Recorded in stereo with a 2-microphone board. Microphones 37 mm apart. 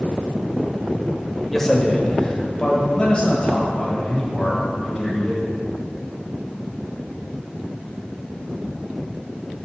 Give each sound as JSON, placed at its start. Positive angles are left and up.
{"t": 1.5, "sound": "a man speaking", "side_deg": 10, "distance_m": 1.0}